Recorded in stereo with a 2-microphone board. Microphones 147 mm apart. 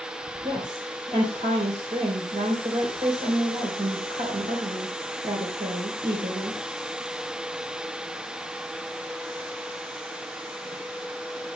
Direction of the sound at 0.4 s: 60° right (ahead or behind).